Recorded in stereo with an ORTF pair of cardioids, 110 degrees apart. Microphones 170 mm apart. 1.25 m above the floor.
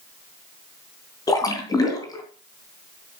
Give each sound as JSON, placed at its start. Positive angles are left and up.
{"t": 1.3, "sound": "a splash", "azimuth_deg": 20, "distance_m": 3.0}